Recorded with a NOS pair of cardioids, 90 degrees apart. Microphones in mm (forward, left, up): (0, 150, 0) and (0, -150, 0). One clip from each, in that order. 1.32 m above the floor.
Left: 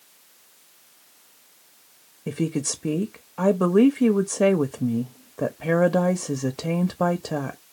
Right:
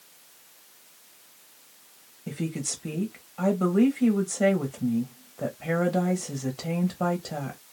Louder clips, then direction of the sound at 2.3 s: Left 6 dB; 40° left.